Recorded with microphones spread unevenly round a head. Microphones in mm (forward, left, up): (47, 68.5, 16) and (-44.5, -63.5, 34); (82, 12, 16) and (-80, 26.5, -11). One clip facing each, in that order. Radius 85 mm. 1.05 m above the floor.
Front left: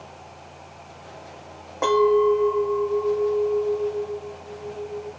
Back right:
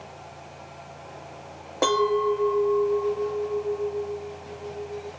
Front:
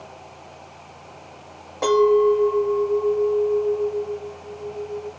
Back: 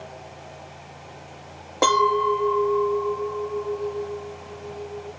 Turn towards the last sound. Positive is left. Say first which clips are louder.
# front left 5 dB, front 6 dB
turn(degrees=-160)